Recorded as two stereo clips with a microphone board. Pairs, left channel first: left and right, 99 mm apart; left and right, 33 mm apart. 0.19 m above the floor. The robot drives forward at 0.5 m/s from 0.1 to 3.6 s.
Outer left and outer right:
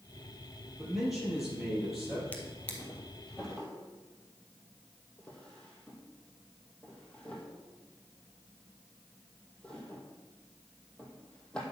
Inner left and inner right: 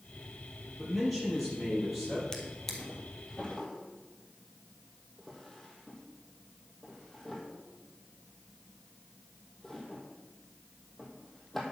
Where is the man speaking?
Centre (ahead or behind), 4.5 m.